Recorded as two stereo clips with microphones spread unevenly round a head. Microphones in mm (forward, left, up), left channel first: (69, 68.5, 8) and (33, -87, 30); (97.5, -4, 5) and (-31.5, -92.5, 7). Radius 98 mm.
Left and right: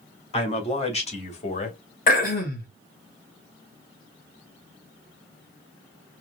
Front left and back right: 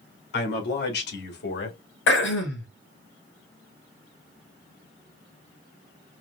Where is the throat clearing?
45° left, 2 m.